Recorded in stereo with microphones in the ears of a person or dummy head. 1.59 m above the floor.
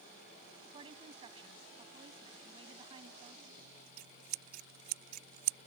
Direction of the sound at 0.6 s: 30° right (ahead or behind).